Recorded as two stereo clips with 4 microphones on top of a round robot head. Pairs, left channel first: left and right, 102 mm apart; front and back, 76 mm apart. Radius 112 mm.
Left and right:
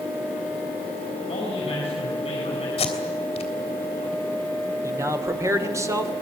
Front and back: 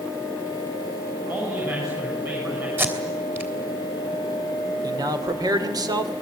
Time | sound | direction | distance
1.3 | a man speaking | 130° left | 7 m
2.8 | tape being pulled | 120° left | 3 m
4.8 | a man speaking | 150° right | 2 m